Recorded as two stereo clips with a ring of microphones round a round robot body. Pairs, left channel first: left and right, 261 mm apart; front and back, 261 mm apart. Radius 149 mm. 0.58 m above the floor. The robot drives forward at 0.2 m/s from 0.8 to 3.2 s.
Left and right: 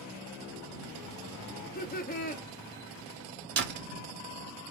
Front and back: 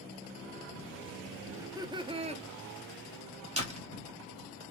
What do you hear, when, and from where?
1.6 s laughter: 105° left, 0.7 m; by 2.4 s 130° left, 0.7 m
3.6 s a door slam: 120° right, 1.0 m